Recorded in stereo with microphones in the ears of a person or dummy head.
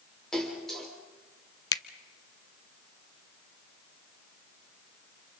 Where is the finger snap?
20° left (ahead or behind), 0.6 m.